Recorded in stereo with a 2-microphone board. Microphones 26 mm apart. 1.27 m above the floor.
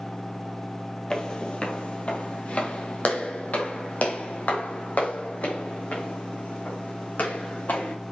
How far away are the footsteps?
About 2 m.